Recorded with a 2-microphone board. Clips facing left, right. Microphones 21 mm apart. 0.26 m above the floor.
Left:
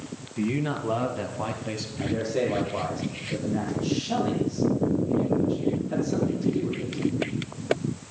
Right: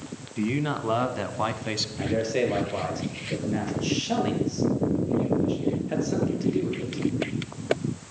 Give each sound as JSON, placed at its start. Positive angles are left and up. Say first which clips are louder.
{"t": 0.4, "sound": "a man speaking", "louder": "even", "side_deg": -20, "distance_m": 1.9}
{"t": 2.0, "sound": "a man speaking", "louder": "even", "side_deg": -45, "distance_m": 6.0}